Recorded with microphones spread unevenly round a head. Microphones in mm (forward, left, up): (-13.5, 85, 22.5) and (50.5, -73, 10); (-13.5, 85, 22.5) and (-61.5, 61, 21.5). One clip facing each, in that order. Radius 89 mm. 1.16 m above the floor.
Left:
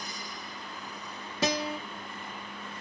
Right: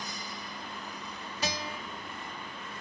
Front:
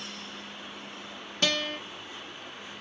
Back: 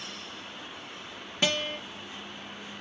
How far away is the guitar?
About 1.1 m.